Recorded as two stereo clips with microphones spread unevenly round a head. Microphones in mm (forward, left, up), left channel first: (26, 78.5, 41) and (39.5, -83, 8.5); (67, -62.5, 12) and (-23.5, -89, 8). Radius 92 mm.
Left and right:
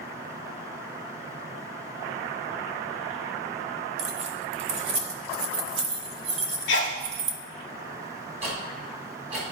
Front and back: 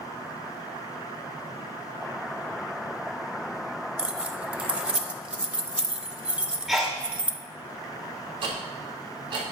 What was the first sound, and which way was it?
Keys jangling, 95° right.